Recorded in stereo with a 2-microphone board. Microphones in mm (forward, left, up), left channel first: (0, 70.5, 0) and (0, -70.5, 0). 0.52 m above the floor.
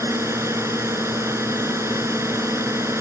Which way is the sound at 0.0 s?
20° right (ahead or behind).